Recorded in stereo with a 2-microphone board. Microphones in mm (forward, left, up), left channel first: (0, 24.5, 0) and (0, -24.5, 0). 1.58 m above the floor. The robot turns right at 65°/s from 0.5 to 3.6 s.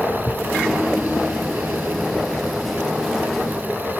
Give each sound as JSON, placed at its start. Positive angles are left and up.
{"t": 0.2, "sound": "a thud", "side_deg": 75}